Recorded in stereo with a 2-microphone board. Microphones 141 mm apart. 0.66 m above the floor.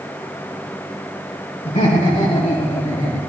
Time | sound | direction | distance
1.6 | laughter | 60° left (ahead or behind) | 4 m